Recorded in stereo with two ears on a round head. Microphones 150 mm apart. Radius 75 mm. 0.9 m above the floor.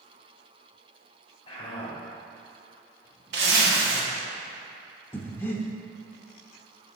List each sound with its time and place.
1.5 s a man speaking: 30° left (ahead or behind), 2 m
3.3 s a zipper: 70° right (ahead or behind), 1.3 m
5.1 s breathing: 10° left (ahead or behind), 0.6 m